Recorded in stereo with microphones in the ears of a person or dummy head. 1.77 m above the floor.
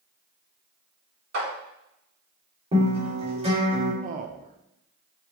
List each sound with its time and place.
1.3 s a clap: 70° right (ahead or behind), 2 m
2.7 s a guitar: 30° right (ahead or behind), 1.6 m
4.0 s a man speaking: 40° right (ahead or behind), 0.5 m